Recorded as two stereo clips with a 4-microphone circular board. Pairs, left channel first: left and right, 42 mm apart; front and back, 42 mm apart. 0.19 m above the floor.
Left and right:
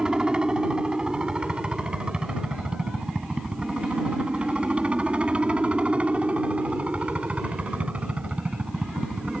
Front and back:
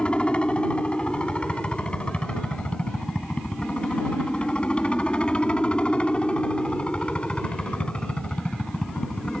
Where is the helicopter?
40° right; by 9.4 s 55° right.